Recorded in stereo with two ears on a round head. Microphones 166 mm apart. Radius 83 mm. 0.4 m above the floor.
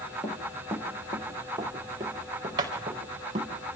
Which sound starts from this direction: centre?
Running footsteps, at 0.2 s.